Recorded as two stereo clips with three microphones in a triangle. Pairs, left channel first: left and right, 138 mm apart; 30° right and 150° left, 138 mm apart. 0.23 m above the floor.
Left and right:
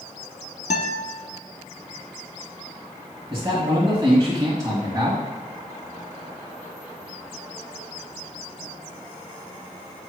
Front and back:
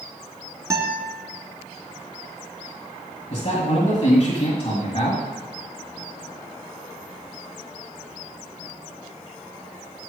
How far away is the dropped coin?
No dropped coin in this recording.